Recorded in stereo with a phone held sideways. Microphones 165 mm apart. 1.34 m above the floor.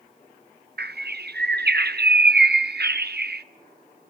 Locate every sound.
0.8 s a bird: 75° right (ahead or behind), 0.7 m